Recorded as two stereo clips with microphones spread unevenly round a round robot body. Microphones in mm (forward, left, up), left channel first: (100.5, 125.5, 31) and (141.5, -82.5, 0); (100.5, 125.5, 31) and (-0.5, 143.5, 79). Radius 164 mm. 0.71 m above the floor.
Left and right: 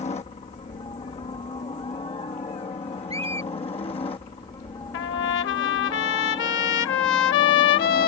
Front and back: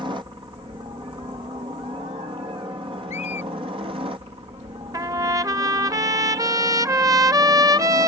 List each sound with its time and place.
0.0 s a helicopter: 135° left; by 8.1 s 170° left
3.1 s a squeak: 15° right
4.9 s a trumpet: 130° left